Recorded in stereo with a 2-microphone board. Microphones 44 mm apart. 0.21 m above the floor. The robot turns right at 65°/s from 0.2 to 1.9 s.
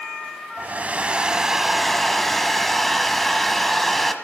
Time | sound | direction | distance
0.6 | a hair dryer | 75° right | 0.8 m